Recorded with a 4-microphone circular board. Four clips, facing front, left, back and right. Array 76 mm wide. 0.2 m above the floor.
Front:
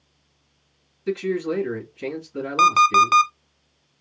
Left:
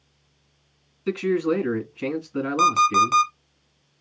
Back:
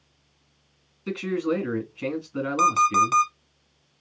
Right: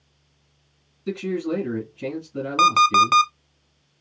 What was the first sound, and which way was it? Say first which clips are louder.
A man speaking: left 4 dB, front 2 dB; 110° left.